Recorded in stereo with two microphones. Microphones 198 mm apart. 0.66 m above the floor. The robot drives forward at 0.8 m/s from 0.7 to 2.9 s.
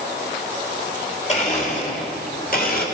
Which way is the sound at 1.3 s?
35° left (ahead or behind).